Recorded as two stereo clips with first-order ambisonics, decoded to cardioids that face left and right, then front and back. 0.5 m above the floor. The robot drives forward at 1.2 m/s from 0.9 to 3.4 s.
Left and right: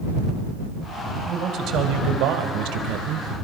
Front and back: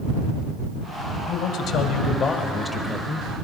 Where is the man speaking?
35° right, 2.5 m; by 3.3 s 115° right, 1.6 m.